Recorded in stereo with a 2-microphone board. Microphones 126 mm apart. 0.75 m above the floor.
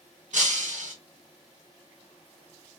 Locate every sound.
0.3 s breaking glass: 80° right, 1.2 m